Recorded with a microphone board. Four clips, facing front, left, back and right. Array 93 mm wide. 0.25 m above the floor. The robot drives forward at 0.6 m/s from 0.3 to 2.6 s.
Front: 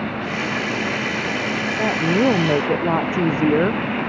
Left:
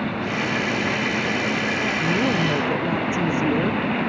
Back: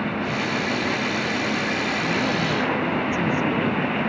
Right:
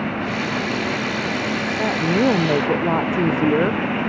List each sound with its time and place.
1.8 s a woman speaking: 40° right